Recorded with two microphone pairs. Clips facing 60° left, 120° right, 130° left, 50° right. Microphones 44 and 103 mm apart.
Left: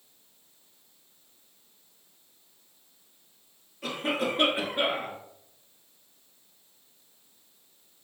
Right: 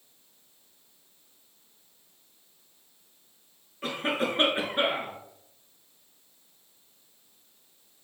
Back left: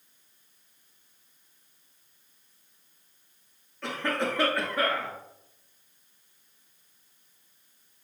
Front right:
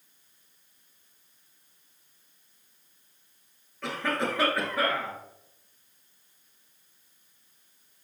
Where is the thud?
No thud in this recording.